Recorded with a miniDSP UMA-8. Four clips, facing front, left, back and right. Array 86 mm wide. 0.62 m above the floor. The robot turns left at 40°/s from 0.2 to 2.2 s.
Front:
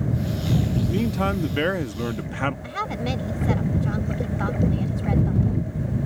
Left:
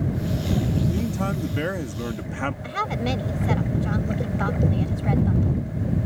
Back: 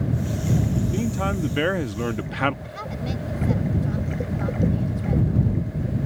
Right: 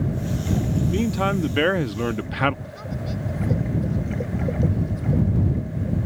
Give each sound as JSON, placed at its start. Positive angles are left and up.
{"t": 0.9, "sound": "a man speaking", "azimuth_deg": -65}
{"t": 2.6, "sound": "a woman speaking", "azimuth_deg": 60}